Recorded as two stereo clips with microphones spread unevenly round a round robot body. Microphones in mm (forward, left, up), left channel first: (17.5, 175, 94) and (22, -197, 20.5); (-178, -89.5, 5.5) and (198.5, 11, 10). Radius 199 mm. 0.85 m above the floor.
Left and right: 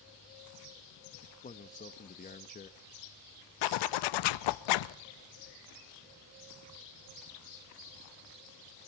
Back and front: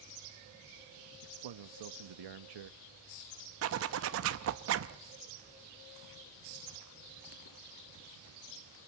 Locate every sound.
1.2 s a man speaking: 20° left, 1.1 m
3.6 s a zipper: 70° left, 0.7 m